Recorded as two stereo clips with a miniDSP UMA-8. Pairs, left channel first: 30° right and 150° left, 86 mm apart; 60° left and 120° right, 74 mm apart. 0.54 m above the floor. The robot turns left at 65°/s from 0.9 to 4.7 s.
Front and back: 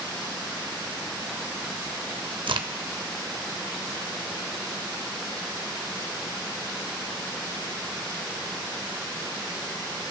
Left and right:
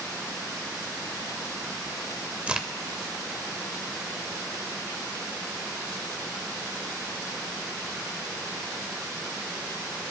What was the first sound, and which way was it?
A crack, 165° left.